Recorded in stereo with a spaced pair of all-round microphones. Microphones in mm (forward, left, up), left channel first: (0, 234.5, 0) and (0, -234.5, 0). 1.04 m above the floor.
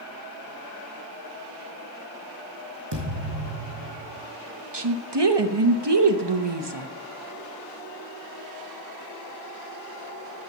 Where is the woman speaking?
65° right (ahead or behind), 1.0 m.